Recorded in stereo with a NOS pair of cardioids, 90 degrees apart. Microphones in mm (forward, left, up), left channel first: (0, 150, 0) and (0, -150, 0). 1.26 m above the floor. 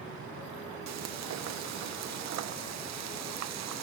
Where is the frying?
65° right, 0.9 m.